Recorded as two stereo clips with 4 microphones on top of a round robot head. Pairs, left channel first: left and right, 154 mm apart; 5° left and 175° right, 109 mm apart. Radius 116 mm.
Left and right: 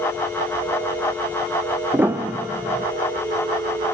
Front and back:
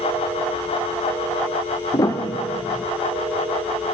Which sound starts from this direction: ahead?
A piano, at 1.9 s.